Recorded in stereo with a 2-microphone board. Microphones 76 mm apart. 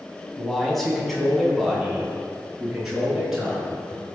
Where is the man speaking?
5° left (ahead or behind), 3.5 m; by 3.8 s 5° right (ahead or behind), 7.5 m.